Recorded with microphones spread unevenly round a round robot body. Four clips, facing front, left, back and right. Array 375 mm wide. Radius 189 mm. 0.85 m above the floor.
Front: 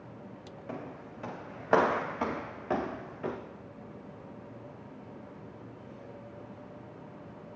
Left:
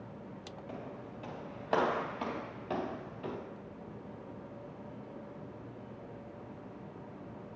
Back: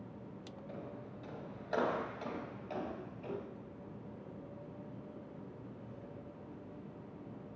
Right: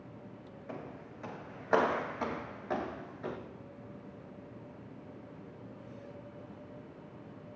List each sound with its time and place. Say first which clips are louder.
0.7 s footsteps: right 1 dB, front 7 dB; 5° right, 8 m; by 3.4 s 5° left, 6 m